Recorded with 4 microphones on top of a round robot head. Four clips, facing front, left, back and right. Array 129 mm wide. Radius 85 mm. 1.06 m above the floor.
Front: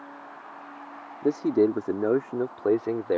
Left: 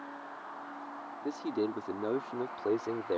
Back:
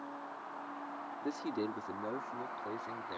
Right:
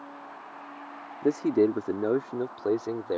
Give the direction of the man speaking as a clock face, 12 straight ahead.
1 o'clock.